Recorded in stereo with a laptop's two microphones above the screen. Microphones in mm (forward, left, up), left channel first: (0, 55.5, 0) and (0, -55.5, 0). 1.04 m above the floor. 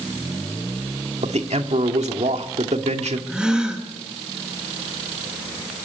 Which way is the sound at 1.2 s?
80° right.